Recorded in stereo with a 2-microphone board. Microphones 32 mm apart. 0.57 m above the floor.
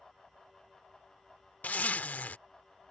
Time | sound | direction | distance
1.6 | a zipper | 60° left (ahead or behind) | ?